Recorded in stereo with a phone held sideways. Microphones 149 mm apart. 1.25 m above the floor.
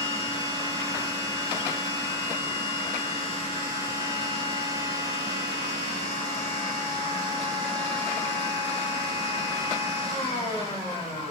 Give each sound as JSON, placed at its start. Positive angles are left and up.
{"t": 0.0, "sound": "a machine running", "side_deg": 40, "distance_m": 3.0}